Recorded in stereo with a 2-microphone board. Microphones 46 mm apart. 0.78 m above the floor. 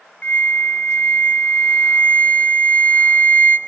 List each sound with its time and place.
0.2 s a flute: 35° left (ahead or behind), 1.2 m